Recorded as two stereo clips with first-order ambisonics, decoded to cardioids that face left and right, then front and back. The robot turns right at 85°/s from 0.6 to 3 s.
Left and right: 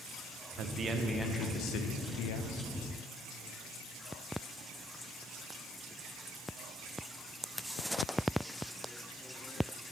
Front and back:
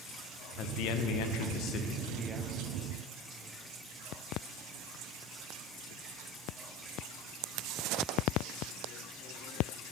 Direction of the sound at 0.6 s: 45° right.